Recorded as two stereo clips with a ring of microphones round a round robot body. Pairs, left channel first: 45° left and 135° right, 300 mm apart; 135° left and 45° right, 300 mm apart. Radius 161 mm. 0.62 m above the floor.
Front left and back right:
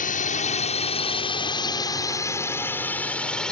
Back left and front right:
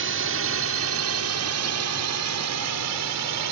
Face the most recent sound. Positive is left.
turn(degrees=-40)